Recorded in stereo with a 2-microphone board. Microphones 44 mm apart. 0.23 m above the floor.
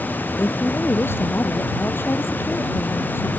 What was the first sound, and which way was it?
A woman speaking, 60° left (ahead or behind).